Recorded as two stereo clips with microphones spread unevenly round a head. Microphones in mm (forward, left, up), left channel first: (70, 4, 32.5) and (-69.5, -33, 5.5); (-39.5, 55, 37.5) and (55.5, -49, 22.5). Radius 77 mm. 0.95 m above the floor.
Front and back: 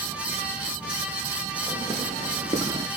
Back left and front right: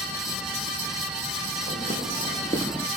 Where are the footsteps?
95° left, 1.5 m; by 2.9 s 120° left, 0.9 m.